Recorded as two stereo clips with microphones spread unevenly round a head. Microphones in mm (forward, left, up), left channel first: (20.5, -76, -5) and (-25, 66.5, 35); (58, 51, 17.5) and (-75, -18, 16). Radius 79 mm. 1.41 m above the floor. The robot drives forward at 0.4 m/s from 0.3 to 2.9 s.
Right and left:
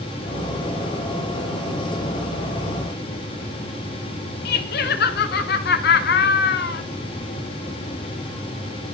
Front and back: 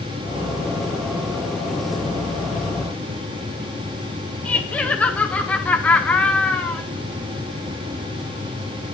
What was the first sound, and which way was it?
Laughter, 55° right.